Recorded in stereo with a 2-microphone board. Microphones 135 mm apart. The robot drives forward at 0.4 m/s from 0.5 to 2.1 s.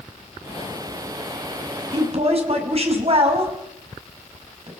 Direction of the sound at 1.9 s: 50° right (ahead or behind).